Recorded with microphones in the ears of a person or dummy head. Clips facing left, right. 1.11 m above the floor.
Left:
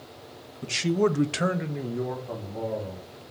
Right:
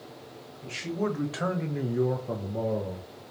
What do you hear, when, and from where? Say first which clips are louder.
0.6 s a man speaking: left 7 dB; 55° left (ahead or behind), 1.4 m; by 3.1 s 55° right (ahead or behind), 1.8 m